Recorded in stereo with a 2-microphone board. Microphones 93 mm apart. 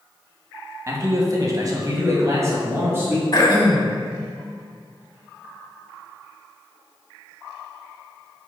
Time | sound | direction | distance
0.9 | a man speaking | 35° right (ahead or behind) | 2.0 m
3.3 | throat clearing | 45° left (ahead or behind) | 1.5 m